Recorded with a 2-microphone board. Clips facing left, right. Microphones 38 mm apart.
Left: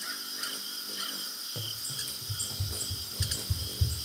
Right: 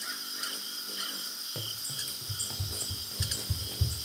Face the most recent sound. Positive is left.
turn(degrees=-60)  # may be behind; listen again after turning